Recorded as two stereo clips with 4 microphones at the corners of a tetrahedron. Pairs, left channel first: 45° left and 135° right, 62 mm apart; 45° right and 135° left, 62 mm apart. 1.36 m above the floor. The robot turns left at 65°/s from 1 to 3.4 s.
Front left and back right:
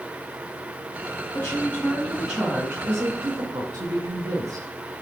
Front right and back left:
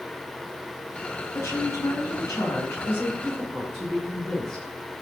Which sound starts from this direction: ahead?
A woman speaking, at 1.3 s.